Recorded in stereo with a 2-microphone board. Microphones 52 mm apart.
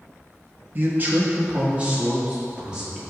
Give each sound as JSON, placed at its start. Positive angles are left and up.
{"t": 0.8, "sound": "a man speaking", "side_deg": -40, "distance_m": 1.2}